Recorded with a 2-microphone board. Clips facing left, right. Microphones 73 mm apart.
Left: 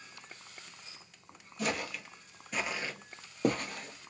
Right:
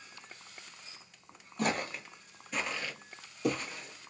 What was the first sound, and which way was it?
Footsteps, 50° right (ahead or behind).